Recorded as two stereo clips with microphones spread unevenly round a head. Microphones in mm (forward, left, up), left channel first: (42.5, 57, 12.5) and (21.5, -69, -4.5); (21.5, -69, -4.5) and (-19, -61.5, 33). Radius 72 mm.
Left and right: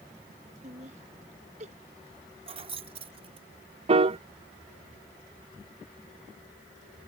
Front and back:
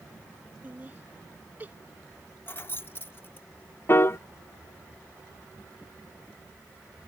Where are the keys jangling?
55° right.